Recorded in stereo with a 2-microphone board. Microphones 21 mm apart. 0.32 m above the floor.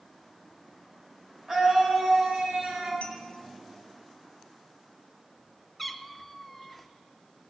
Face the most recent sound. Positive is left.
turn(degrees=0)  # may be behind; listen again after turning